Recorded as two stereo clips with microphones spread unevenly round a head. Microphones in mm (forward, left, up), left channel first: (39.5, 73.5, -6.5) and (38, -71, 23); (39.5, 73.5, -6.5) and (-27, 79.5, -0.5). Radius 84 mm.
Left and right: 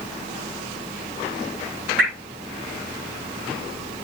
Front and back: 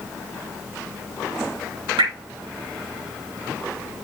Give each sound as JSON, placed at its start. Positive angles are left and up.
{"t": 2.0, "sound": "dripping", "azimuth_deg": -175, "distance_m": 7.5}